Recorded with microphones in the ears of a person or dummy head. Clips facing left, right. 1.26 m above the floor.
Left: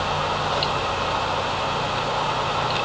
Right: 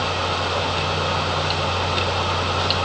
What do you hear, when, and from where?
Only background noise.